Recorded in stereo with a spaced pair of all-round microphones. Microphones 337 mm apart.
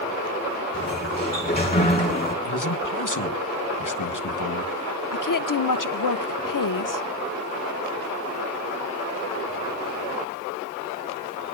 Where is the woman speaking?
70° left (ahead or behind), 0.5 m.